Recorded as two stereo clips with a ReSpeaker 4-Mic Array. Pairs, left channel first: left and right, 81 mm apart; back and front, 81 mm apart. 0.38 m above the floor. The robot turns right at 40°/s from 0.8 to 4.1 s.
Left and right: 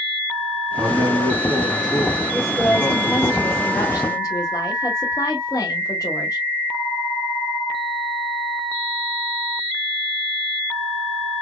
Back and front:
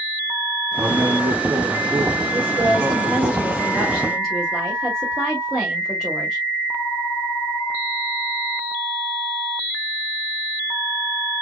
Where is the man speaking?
40° right, 2.5 m; by 3.3 s 60° left, 2.5 m.